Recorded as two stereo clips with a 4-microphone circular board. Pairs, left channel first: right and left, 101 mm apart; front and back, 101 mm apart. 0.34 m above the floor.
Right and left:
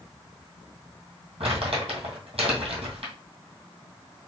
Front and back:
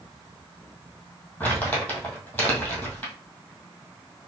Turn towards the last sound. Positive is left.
turn(degrees=75)